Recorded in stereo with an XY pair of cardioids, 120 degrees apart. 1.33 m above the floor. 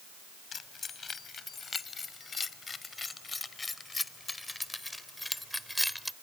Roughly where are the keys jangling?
Ahead left.